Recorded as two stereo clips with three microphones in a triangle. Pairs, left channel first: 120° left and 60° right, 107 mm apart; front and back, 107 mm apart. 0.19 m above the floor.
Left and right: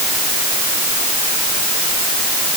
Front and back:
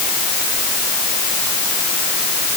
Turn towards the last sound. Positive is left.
No sound to turn to.